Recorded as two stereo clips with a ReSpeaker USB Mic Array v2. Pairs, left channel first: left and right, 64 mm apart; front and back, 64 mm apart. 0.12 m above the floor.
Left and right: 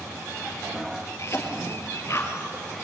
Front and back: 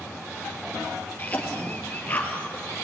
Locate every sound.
1.2 s a cough: 60° left, 3 m